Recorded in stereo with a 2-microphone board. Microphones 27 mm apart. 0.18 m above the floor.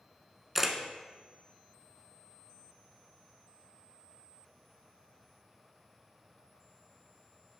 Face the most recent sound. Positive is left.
turn(degrees=-10)  # may be behind; listen again after turning